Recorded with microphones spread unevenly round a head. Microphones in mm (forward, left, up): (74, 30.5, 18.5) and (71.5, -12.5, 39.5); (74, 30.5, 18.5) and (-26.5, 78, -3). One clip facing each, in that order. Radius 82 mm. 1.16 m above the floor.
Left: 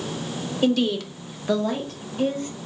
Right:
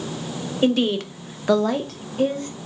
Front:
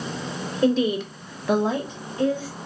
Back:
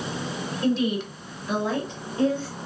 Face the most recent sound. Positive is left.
turn(degrees=-145)